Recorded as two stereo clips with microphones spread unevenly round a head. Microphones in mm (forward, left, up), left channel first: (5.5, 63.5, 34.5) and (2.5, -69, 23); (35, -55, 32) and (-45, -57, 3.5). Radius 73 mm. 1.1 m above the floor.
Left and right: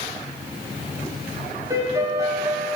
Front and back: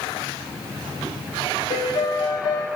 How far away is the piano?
About 3 m.